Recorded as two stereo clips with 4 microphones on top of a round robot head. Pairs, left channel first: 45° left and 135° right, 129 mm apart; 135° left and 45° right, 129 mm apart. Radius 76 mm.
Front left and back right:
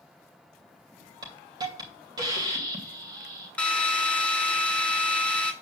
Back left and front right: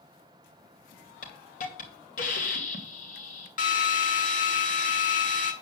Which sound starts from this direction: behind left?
A drill, at 3.6 s.